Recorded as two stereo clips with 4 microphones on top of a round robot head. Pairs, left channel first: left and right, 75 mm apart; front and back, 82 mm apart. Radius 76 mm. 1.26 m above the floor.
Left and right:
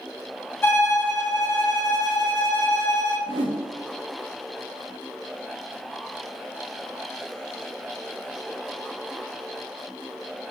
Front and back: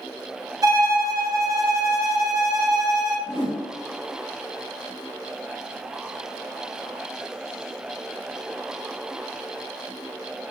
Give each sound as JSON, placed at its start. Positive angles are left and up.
{"t": 0.6, "sound": "a violin", "azimuth_deg": 145, "distance_m": 0.8}
{"t": 3.3, "sound": "a whoosh", "azimuth_deg": -105, "distance_m": 0.6}